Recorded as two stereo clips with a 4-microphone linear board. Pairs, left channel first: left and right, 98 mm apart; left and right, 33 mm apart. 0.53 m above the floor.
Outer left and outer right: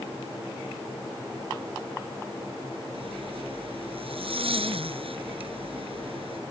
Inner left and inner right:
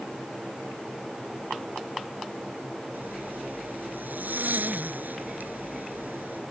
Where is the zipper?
65° right (ahead or behind).